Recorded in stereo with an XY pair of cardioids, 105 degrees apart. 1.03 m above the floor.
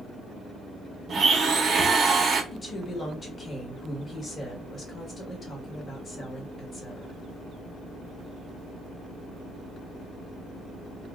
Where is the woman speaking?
40° left, 1.4 m.